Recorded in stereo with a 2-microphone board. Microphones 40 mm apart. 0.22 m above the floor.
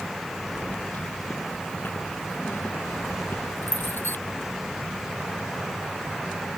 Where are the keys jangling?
45° left (ahead or behind); by 4.2 s 55° left (ahead or behind).